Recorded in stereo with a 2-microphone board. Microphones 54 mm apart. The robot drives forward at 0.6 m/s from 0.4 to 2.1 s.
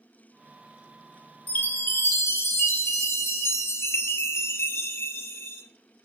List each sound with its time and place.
1.5 s a chime: 30° left (ahead or behind), 0.8 m; by 5.6 s 55° left (ahead or behind), 0.5 m